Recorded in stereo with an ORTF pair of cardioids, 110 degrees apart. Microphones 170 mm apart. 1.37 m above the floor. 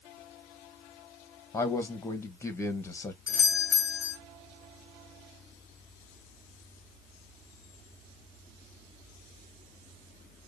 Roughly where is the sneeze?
No sneeze in this recording.